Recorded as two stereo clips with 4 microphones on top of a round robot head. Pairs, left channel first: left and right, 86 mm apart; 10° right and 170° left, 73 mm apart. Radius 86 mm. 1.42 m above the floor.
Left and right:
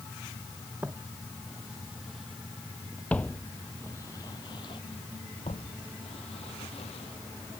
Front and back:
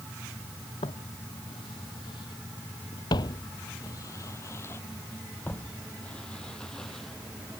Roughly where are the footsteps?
Ahead.